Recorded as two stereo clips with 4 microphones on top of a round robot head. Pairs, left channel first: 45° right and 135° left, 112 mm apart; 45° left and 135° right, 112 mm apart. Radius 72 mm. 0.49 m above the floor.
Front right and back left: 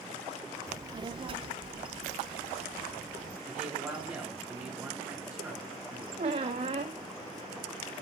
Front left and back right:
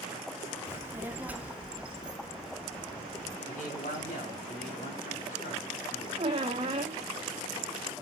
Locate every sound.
0.7 s a child speaking: straight behind, 0.8 m; by 3.4 s 140° left, 2.5 m
3.5 s a man speaking: 65° left, 4.5 m
6.2 s a squeak: 175° left, 1.3 m